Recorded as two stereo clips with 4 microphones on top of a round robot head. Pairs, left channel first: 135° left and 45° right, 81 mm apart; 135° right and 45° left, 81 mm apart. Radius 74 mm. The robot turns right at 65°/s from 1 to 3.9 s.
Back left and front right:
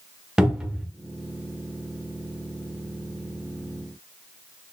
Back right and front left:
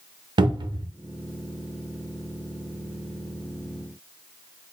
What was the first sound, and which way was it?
A cupboard door, 35° left.